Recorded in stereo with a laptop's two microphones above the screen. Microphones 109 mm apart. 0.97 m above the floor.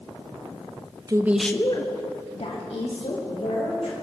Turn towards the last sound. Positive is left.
turn(degrees=85)